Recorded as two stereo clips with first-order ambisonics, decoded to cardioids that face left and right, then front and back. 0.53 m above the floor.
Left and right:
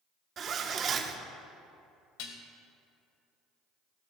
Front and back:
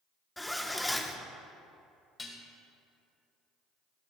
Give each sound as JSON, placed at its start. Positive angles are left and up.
{"t": 0.4, "sound": "a zipper", "azimuth_deg": -85, "distance_m": 0.8}
{"t": 2.2, "sound": "dishes clattering", "azimuth_deg": 75, "distance_m": 1.4}